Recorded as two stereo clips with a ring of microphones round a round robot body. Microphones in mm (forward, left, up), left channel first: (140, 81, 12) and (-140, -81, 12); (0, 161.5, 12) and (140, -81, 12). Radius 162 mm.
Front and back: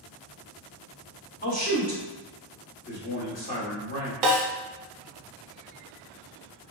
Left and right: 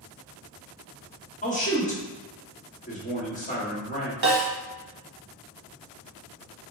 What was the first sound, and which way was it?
A man speaking, 75° left.